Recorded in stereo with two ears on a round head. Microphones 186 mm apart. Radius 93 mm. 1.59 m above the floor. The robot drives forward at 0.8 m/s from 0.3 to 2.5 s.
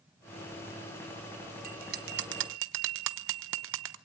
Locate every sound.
1.6 s a bell: 40° right (ahead or behind), 1.4 m; by 4.0 s 65° right (ahead or behind), 1.1 m